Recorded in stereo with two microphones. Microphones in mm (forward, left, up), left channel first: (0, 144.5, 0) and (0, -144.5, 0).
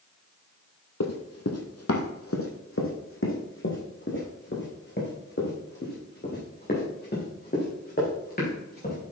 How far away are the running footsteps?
About 1.3 m.